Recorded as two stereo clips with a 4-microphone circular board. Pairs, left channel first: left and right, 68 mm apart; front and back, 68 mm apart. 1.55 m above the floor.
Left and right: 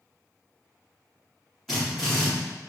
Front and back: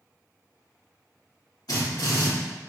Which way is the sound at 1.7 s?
Straight ahead.